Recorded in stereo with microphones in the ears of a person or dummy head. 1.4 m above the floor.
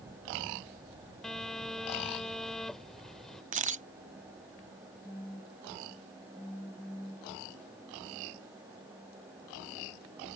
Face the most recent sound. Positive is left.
turn(degrees=10)  # may be behind; listen again after turning